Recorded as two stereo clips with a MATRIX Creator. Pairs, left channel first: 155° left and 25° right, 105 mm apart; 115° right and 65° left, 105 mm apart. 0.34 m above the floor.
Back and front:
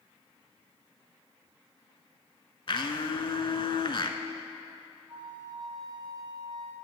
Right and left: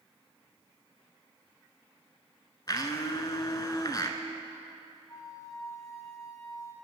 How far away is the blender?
About 0.6 m.